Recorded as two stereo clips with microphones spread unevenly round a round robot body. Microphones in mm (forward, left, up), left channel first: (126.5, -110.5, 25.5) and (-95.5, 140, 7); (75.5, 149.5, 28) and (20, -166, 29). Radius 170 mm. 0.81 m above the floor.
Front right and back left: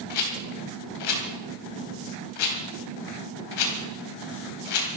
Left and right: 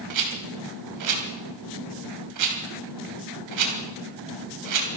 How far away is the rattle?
About 3 m.